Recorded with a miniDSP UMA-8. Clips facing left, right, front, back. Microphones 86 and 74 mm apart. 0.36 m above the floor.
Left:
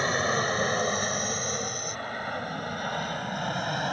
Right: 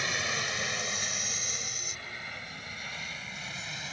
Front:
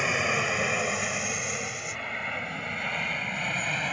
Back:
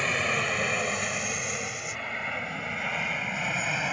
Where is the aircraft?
80° left; by 3.9 s 95° left.